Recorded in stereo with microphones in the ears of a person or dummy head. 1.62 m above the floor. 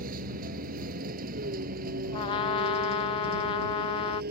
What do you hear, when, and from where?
0.0 s a vehicle: 45° right (ahead or behind); by 4.3 s 50° right (ahead or behind)
2.1 s a trumpet: 25° left (ahead or behind)